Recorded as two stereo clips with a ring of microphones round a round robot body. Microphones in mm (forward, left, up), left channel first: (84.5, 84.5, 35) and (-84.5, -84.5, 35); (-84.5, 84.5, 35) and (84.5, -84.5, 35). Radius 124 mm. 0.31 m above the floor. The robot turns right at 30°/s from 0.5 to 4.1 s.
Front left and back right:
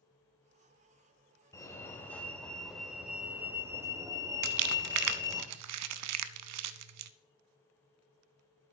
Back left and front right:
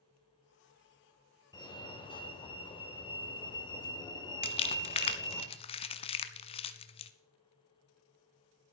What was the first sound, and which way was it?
A fire alarm, 100° left.